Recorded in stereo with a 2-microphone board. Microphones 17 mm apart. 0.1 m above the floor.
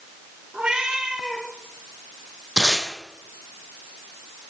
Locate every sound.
0.5 s a cat meowing: 80° right, 5.5 m
2.6 s tape being pulled: 35° right (ahead or behind), 4 m